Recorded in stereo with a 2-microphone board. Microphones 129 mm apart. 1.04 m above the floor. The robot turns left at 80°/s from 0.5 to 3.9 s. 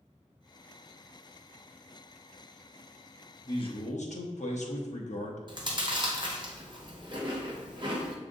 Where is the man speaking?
150° left, 1.0 m; by 5.4 s 115° left, 1.0 m.